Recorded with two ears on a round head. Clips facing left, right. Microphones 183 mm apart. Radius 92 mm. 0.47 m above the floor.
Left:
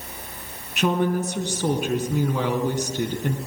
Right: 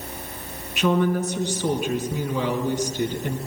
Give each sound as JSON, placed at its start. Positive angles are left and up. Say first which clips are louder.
{"t": 0.8, "sound": "a woman speaking", "louder": "right 1 dB", "side_deg": 40, "distance_m": 4.0}